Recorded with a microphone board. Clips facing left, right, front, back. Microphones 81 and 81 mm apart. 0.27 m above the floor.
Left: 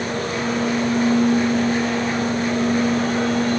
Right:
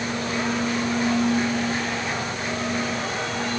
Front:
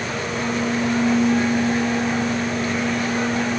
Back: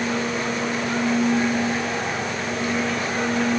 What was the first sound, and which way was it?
Only background noise.